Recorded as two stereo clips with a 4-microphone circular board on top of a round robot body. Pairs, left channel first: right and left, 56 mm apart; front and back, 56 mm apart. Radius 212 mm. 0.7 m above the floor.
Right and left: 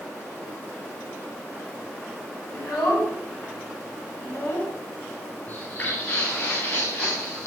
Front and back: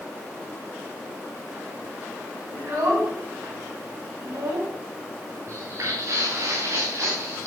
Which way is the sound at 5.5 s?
150° right.